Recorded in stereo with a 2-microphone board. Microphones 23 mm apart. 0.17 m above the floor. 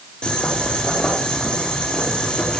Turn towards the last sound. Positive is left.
turn(degrees=50)  # may be behind; listen again after turning